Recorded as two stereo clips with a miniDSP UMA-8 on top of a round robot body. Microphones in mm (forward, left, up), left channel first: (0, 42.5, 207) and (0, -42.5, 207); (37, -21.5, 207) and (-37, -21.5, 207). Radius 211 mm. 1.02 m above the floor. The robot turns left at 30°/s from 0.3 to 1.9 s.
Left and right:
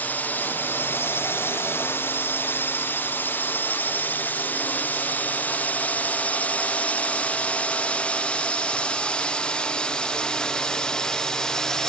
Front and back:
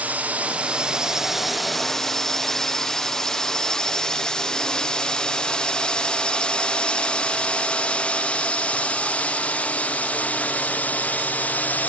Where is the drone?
135° left; by 11.9 s 20° left.